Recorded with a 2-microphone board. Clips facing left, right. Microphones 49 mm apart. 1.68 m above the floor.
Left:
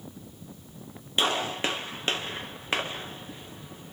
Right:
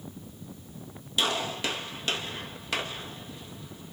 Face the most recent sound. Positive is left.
turn(degrees=30)  # may be behind; listen again after turning